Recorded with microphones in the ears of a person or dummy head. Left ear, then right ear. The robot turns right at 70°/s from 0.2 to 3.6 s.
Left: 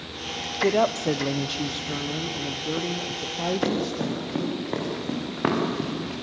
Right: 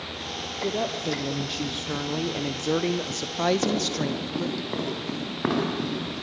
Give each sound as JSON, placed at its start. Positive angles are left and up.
{"t": 0.6, "sound": "a woman speaking", "azimuth_deg": 105, "distance_m": 0.7}
{"t": 3.6, "sound": "running footsteps", "side_deg": 15, "distance_m": 6.0}